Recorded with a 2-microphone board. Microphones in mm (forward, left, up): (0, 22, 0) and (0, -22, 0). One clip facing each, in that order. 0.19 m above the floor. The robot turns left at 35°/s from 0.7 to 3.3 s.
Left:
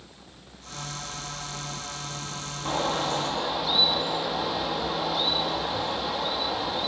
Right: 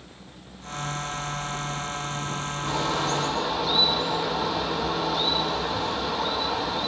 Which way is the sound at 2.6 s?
25° left (ahead or behind).